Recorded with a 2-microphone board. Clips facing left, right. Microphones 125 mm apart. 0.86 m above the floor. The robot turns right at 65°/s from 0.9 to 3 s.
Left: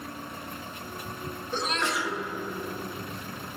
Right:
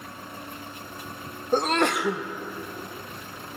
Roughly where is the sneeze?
Behind right.